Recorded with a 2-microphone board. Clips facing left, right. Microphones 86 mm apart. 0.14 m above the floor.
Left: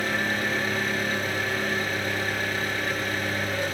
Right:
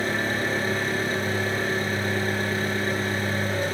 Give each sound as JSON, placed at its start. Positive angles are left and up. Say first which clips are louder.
{"t": 0.0, "sound": "an engine running", "louder": "right 1 dB", "side_deg": -30, "distance_m": 2.0}